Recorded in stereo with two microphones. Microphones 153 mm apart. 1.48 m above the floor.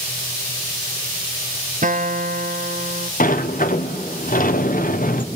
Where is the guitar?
60° right (ahead or behind), 0.8 m.